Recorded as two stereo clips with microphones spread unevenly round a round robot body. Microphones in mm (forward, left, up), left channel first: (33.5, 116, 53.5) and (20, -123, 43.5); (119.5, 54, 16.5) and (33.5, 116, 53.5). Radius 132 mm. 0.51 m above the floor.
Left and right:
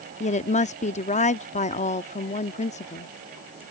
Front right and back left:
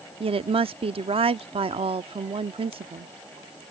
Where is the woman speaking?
130° left.